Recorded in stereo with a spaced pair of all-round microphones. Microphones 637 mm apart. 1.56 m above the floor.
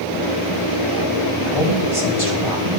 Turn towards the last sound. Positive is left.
turn(degrees=-45)  # may be behind; listen again after turning